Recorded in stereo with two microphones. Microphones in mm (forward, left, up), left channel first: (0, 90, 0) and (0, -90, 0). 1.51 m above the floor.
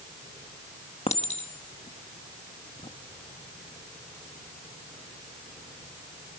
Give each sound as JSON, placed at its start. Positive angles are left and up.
{"t": 1.1, "sound": "a clink", "side_deg": 35, "distance_m": 1.3}